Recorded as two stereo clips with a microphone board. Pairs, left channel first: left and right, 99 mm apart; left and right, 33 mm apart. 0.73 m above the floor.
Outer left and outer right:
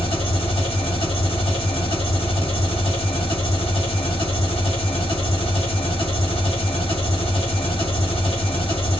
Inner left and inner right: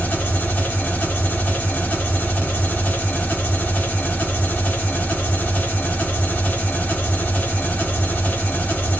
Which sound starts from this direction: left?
An engine running, at 0.0 s.